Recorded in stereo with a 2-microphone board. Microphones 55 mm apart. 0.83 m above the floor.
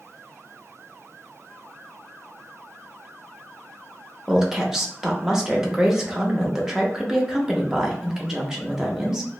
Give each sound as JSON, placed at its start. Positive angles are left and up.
{"t": 4.3, "sound": "a woman speaking", "side_deg": -10, "distance_m": 0.7}